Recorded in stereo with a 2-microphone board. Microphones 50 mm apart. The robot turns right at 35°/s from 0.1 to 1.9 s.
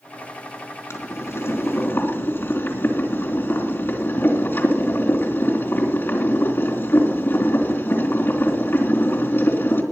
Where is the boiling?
90° left, 3 m; by 9.8 s 125° left, 3 m.